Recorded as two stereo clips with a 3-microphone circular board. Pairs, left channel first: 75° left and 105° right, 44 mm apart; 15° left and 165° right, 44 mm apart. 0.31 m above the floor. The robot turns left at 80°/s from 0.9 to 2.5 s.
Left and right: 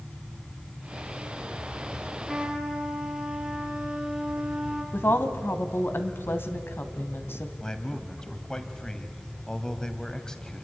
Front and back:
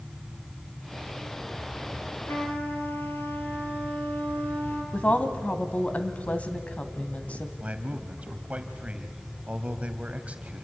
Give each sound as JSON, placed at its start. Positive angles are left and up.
{"t": 2.3, "sound": "a trumpet", "azimuth_deg": -10, "distance_m": 4.0}
{"t": 4.9, "sound": "a woman speaking", "azimuth_deg": 65, "distance_m": 1.9}
{"t": 7.6, "sound": "a man speaking", "azimuth_deg": 145, "distance_m": 2.0}